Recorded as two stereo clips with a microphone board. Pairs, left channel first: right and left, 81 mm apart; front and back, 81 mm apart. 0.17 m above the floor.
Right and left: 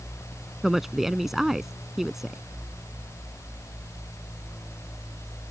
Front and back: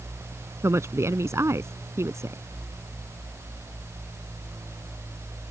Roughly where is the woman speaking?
Behind.